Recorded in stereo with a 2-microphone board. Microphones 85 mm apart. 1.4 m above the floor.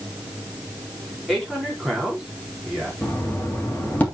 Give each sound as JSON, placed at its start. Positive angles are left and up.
{"t": 1.3, "sound": "a man speaking", "side_deg": -5, "distance_m": 4.0}
{"t": 3.0, "sound": "knocking", "side_deg": 20, "distance_m": 3.0}